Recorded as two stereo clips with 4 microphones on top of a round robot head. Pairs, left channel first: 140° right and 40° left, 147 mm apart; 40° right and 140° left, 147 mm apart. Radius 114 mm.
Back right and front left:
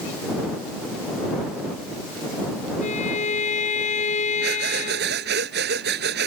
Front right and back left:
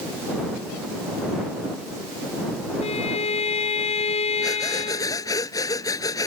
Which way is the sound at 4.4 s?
30° left.